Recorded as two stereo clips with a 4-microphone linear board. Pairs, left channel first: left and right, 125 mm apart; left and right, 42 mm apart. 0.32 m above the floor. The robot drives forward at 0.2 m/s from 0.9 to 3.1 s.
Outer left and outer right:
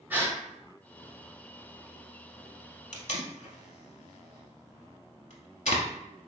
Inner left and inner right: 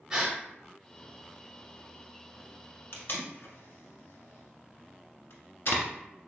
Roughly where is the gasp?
Centre.